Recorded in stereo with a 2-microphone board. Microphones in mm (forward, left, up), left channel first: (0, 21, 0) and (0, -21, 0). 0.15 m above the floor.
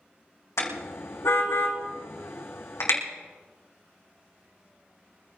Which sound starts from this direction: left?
A car horn, at 0.6 s.